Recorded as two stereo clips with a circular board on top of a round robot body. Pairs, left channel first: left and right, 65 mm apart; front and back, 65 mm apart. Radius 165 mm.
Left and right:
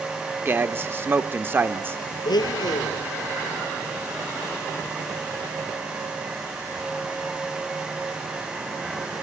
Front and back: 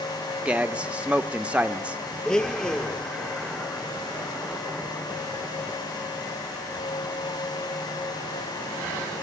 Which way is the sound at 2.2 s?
75° left.